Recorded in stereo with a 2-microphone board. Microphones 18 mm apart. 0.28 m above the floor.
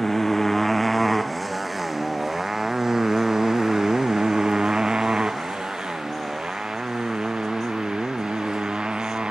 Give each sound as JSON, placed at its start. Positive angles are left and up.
{"t": 0.0, "sound": "a motorcycle", "side_deg": 20}